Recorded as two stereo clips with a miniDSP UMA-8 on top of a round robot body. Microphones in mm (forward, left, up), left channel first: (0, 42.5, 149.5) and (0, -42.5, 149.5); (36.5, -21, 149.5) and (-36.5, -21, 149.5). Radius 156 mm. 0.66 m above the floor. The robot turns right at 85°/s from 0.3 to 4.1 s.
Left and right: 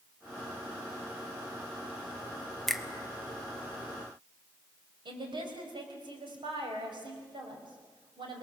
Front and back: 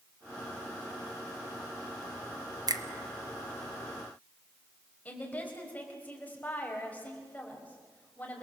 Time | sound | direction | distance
2.7 | a finger snap | 175° left | 1.4 m
5.0 | a woman speaking | 70° right | 4.5 m